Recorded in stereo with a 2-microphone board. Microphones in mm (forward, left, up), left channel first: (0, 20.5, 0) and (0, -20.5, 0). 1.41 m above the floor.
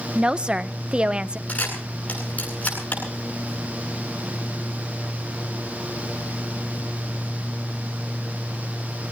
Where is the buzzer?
I don't hear a buzzer.